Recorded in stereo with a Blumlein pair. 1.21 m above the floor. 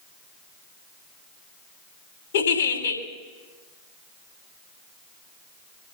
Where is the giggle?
60° left, 3 m.